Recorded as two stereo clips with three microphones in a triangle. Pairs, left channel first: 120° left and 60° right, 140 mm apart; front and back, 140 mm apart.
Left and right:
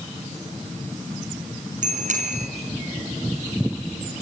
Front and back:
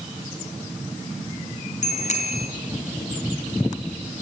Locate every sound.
1.8 s a bicycle bell: 30° right, 4.5 m